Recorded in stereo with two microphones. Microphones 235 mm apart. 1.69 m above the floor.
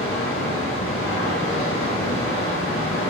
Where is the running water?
65° left (ahead or behind), 3.5 m.